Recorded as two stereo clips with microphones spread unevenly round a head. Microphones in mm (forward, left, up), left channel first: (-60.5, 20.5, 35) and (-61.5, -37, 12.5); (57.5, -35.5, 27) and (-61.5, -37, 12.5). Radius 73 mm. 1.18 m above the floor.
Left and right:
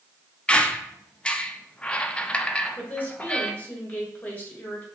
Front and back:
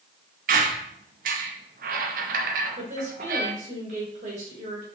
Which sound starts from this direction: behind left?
A woman speaking, at 2.8 s.